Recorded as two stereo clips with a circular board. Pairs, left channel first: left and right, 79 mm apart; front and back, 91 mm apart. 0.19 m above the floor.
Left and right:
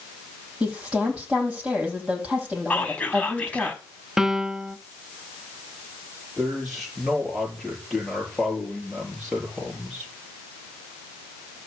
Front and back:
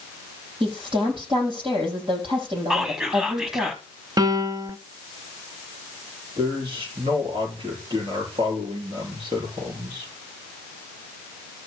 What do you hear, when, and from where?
0.6 s a woman speaking: 165° right, 6 m
2.7 s whispering: 110° left, 1.0 m
4.2 s a piano: 170° right, 0.5 m
6.4 s a man speaking: straight behind, 5 m